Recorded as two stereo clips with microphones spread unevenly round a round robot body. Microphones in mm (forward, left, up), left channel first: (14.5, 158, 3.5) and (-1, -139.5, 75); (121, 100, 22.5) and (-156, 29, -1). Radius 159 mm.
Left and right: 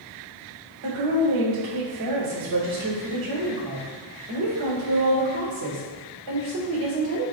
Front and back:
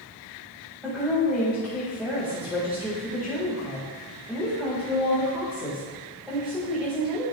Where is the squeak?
I don't hear a squeak.